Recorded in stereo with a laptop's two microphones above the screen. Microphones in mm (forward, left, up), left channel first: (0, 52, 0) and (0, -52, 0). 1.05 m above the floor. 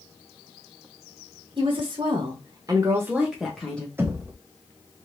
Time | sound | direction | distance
1.6 | a woman speaking | 50° right (ahead or behind) | 1.3 m
4.0 | knocking | 20° right (ahead or behind) | 0.8 m